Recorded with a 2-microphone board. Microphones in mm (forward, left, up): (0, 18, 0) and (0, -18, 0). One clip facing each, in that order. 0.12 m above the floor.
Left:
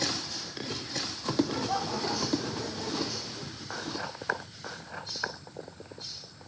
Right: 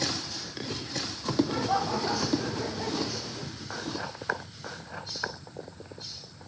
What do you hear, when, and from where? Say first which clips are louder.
1.4 s laughter: right 3 dB; 20° right (ahead or behind); by 3.5 s 25° right (ahead or behind)